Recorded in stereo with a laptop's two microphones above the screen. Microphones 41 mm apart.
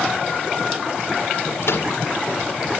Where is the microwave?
75° left (ahead or behind), 2 m.